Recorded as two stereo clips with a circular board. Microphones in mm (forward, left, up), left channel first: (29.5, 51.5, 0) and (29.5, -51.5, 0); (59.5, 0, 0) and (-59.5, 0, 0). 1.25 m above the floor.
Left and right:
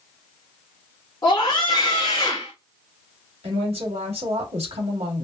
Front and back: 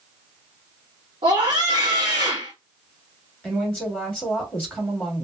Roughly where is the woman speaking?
Right.